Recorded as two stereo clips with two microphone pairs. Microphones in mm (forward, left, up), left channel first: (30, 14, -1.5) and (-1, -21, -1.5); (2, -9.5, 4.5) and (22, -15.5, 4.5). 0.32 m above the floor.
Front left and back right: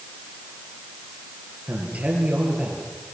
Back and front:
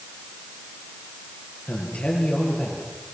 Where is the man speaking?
170° left, 8 m.